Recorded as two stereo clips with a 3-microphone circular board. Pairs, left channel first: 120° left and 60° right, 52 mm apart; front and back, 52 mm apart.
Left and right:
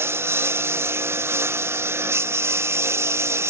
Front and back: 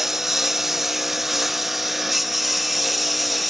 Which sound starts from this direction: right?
A lawn mower, at 0.0 s.